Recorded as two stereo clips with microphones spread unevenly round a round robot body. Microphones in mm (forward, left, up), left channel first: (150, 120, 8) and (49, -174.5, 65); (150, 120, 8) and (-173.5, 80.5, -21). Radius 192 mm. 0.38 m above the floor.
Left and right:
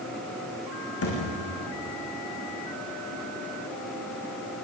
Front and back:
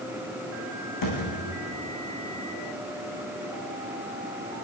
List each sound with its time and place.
1.0 s a thud: 30° left, 7.5 m